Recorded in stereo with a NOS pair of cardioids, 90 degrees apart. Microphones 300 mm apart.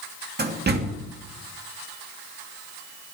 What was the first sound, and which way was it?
A door slam, 35° right.